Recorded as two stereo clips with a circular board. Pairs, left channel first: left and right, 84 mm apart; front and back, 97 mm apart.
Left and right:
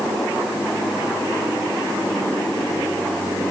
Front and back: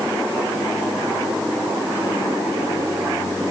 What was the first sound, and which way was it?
Only background noise.